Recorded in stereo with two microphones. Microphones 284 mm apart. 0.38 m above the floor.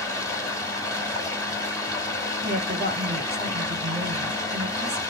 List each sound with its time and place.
0.0 s running water: 10° left (ahead or behind), 1.4 m
2.4 s a woman speaking: 35° right (ahead or behind), 1.8 m